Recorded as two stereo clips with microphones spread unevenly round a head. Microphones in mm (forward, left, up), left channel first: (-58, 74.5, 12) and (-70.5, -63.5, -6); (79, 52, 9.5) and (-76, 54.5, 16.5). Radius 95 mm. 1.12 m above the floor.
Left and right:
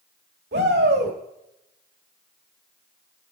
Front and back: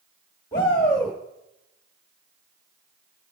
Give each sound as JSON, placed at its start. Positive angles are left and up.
{"t": 0.5, "sound": "a shout", "azimuth_deg": -70, "distance_m": 1.6}